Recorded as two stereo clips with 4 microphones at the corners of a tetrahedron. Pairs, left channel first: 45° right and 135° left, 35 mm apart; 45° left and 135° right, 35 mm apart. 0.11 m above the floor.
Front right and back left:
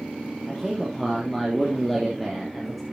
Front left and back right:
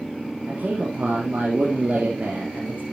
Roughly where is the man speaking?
Behind right.